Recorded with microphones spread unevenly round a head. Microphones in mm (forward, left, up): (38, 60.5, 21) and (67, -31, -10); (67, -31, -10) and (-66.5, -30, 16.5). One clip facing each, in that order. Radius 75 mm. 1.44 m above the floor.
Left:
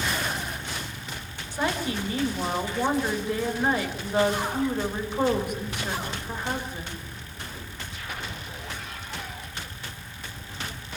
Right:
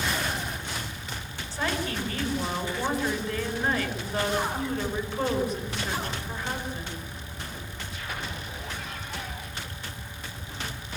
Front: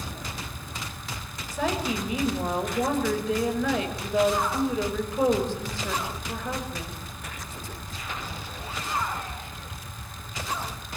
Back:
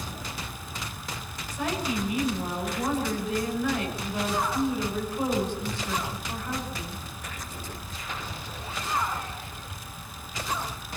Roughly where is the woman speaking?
Ahead left.